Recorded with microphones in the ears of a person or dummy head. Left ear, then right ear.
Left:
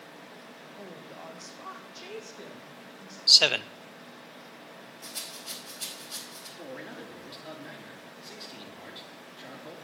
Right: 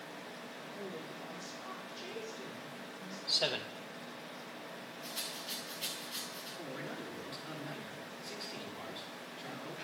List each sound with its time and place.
0.8 s a woman speaking: 35° left (ahead or behind), 1.8 m; by 3.2 s 85° left, 2 m
3.3 s a man speaking: 70° left (ahead or behind), 0.6 m
5.0 s a rattle: 70° left (ahead or behind), 5 m
6.6 s a man speaking: 20° left (ahead or behind), 3 m